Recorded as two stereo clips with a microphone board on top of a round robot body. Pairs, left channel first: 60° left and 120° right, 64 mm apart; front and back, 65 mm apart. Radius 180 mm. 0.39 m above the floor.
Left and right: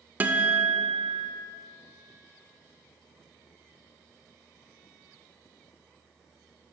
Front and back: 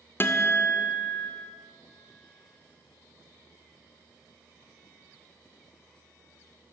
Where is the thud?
No thud in this recording.